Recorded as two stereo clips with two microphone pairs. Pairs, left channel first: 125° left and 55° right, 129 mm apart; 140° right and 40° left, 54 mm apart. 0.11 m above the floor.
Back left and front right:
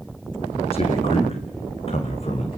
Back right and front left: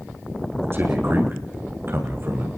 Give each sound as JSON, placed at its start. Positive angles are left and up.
{"t": 0.7, "sound": "a man speaking", "azimuth_deg": 85, "distance_m": 6.5}